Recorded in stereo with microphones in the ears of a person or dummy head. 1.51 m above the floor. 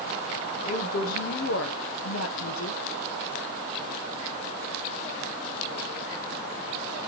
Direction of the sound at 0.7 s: 40° left (ahead or behind).